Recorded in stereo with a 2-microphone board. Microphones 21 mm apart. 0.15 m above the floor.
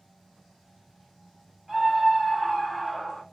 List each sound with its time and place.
1.7 s a scream: 10° right (ahead or behind), 1.8 m; by 3.2 s 10° left (ahead or behind), 1.6 m